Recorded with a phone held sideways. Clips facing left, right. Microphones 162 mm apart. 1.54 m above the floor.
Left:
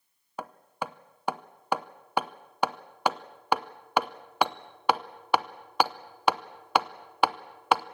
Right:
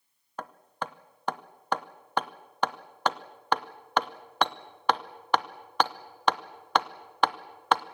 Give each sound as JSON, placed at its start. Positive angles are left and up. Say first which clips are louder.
{"t": 0.4, "sound": "hammering", "louder": "left 1 dB", "side_deg": 10, "distance_m": 0.7}